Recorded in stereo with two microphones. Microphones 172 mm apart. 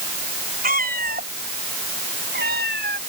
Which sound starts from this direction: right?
A cat meowing, at 0.6 s.